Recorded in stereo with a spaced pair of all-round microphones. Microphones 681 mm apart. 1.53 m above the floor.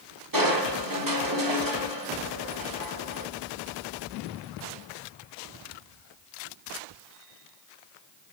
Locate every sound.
0.3 s crushing: 30° right (ahead or behind), 1.4 m